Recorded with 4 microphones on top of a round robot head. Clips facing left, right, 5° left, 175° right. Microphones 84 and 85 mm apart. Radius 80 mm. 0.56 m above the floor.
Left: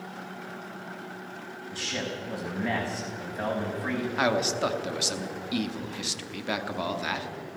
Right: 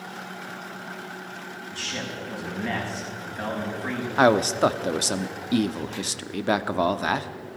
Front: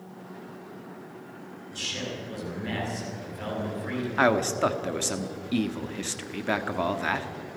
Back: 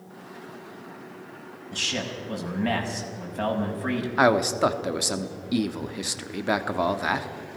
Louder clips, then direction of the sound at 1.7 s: Left 1 dB, back 4 dB; 170° left.